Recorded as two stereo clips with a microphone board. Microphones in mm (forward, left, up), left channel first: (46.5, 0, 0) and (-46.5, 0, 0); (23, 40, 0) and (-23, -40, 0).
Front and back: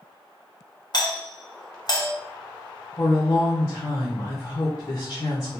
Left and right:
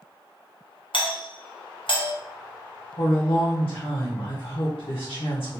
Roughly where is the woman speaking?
Ahead left.